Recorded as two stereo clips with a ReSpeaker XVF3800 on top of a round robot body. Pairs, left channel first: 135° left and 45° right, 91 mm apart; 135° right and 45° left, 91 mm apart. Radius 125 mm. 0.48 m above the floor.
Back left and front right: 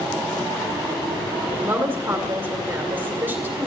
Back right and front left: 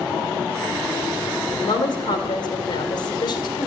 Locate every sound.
1.6 s a woman speaking: 115° right, 2 m